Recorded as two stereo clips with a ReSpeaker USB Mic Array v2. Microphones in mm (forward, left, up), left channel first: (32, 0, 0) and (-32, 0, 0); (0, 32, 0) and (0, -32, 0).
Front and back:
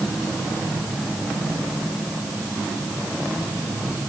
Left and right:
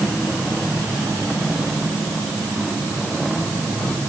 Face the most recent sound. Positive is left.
No sound to turn to.